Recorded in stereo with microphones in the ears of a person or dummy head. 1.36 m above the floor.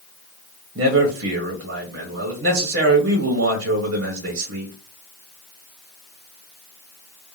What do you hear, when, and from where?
0.8 s a man speaking: 70° right (ahead or behind), 0.8 m